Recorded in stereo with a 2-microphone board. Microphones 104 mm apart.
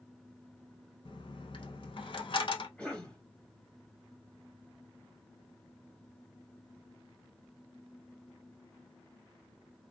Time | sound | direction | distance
1.1 | a dropped coin | 55° left (ahead or behind) | 0.5 m
2.8 | a cough | 10° left (ahead or behind) | 1.0 m